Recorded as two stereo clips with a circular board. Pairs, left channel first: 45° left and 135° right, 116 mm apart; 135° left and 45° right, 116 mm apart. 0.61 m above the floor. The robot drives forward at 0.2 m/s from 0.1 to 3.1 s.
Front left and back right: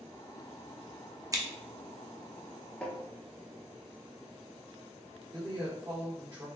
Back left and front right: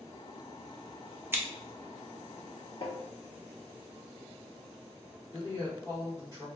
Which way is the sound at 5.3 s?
175° right.